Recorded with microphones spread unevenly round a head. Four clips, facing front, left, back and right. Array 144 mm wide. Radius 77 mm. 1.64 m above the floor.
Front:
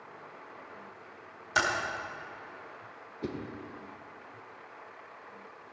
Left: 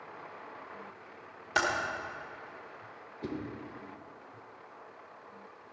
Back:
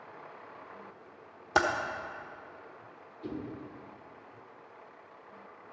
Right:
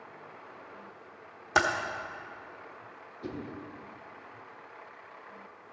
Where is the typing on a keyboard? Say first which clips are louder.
Right 4 dB, back 2 dB; 150° right, 1.1 m.